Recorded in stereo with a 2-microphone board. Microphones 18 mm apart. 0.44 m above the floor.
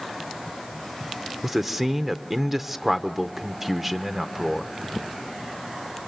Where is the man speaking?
20° right (ahead or behind), 0.8 m.